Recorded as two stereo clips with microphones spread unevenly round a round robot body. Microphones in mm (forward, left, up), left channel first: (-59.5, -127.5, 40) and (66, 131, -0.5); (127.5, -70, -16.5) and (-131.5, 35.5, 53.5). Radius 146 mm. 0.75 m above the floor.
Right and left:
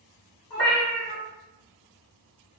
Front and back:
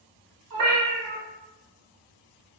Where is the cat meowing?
160° left, 1.6 m.